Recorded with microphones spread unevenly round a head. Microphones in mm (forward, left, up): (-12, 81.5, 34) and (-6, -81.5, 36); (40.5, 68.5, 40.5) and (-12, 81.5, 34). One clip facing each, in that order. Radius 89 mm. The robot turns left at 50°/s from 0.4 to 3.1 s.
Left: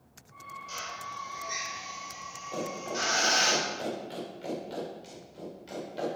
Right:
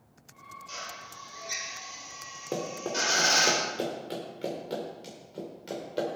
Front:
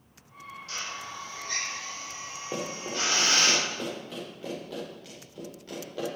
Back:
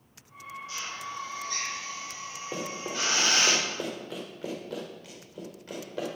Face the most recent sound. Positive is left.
turn(degrees=-115)